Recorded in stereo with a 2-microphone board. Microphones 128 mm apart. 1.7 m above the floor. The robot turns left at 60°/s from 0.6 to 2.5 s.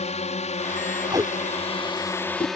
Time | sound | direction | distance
0.0 | a drone | 60° left (ahead or behind) | ?
1.1 | tape being pulled | 30° right (ahead or behind) | ?